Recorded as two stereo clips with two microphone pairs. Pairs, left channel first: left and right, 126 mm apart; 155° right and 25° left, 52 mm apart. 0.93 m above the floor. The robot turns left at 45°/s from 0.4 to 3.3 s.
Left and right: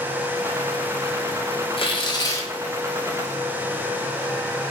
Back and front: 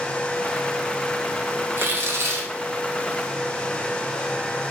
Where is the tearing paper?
55° left, 0.5 m; by 2.5 s 20° left, 0.5 m.